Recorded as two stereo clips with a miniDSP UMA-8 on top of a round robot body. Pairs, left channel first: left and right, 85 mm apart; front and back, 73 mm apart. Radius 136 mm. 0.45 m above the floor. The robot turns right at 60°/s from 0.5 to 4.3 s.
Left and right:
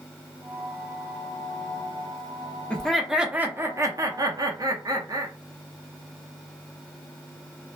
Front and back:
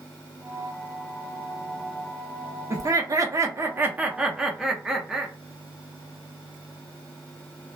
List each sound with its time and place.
2.7 s laughter: 165° left, 1.0 m; by 5.3 s 100° right, 1.0 m